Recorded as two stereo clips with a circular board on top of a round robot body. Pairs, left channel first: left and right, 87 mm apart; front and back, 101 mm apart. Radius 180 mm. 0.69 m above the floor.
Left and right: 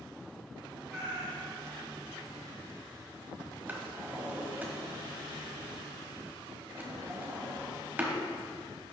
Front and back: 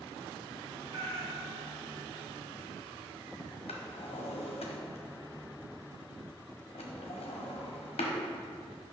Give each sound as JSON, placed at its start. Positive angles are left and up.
{"t": 0.9, "sound": "a cat meowing", "azimuth_deg": -170, "distance_m": 1.9}
{"t": 3.7, "sound": "a drawer", "azimuth_deg": -15, "distance_m": 1.1}